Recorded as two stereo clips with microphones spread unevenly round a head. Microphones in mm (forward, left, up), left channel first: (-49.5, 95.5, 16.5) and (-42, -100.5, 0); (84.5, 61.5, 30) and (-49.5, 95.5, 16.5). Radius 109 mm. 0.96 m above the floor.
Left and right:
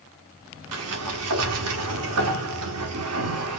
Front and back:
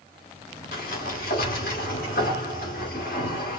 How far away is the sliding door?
About 1.1 m.